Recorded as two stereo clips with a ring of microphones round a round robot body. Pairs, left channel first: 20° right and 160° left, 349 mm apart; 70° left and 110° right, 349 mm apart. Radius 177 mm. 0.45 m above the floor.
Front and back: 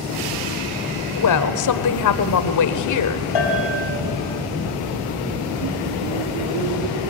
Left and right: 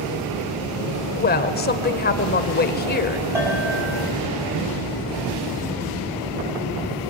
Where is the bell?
30° right, 4.5 m.